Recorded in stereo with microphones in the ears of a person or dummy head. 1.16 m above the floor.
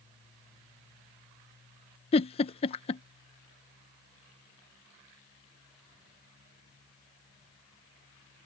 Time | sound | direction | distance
2.1 | a giggle | 35° left (ahead or behind) | ?